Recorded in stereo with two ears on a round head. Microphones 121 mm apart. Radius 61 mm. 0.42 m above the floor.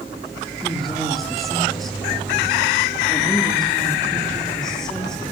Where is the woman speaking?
Centre (ahead or behind), 9 m; by 5.3 s 5° left (ahead or behind), 11.5 m.